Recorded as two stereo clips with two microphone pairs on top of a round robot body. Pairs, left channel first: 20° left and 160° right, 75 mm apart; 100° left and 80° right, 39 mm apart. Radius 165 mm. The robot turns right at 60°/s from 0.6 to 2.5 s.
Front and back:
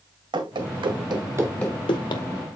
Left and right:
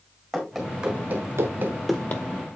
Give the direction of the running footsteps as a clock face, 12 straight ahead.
6 o'clock.